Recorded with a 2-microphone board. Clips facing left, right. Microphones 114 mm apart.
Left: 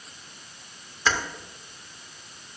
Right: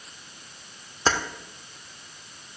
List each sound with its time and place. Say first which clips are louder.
1.1 s keys jangling: right 1 dB; 35° right (ahead or behind), 0.7 m